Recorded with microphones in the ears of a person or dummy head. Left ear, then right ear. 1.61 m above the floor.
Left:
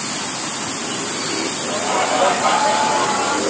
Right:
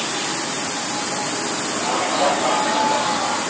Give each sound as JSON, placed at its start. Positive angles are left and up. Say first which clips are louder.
{"t": 1.7, "sound": "laughter", "louder": "left 4 dB", "side_deg": 60, "distance_m": 7.5}